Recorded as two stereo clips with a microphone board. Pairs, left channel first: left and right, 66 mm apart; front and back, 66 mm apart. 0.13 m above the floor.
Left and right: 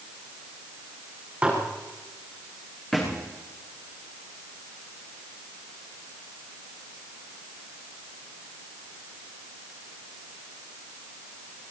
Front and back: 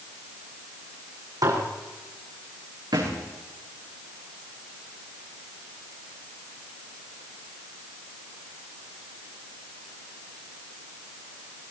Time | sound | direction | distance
1.4 | dishes clattering | 165° right | 5 m
2.9 | a thud | 175° left | 7 m